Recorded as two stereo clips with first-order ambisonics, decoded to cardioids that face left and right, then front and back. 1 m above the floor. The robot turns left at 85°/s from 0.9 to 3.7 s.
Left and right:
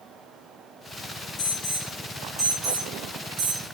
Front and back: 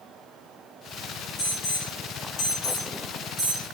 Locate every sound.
1.4 s an alarm: 65° left, 4 m; by 3.6 s 130° right, 4 m